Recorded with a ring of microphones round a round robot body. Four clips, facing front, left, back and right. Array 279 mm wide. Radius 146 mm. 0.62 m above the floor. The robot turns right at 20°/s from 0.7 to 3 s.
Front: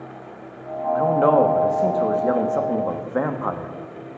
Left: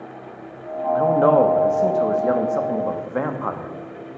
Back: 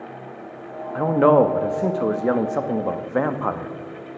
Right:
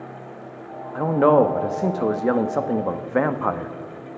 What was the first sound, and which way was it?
A man speaking, 155° right.